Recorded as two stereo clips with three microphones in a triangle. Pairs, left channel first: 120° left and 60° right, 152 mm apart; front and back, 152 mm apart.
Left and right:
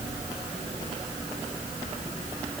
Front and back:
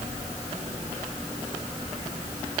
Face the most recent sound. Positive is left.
No sound to turn to.